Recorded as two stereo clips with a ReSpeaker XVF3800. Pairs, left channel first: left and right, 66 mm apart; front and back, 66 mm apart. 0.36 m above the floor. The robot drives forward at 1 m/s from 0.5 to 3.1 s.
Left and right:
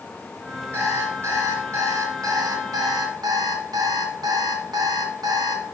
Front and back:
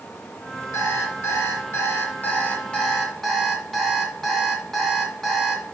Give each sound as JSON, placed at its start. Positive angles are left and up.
{"t": 0.7, "sound": "an alarm clock", "azimuth_deg": -35, "distance_m": 3.0}